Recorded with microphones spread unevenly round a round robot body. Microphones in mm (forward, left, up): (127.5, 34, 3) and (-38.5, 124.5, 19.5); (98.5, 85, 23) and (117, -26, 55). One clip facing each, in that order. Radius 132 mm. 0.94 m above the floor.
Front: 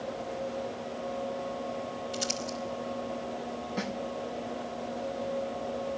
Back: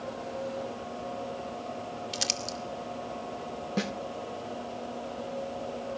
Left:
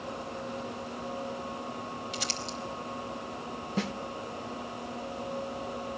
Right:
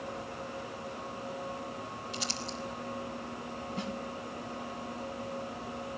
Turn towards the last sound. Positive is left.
turn(degrees=115)